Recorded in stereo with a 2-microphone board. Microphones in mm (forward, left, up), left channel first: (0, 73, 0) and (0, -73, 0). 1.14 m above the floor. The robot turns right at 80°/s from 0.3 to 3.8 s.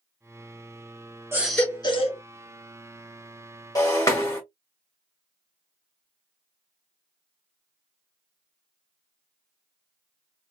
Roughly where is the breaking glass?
Left.